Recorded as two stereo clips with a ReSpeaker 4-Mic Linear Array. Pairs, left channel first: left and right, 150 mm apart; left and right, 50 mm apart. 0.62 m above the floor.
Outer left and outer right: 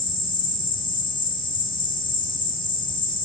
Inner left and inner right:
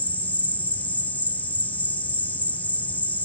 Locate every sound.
0.0 s an insect: 35° left (ahead or behind)